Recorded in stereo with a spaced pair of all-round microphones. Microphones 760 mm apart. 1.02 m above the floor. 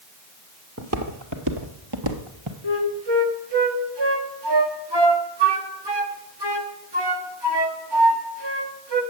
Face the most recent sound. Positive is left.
turn(degrees=-35)  # may be behind; listen again after turning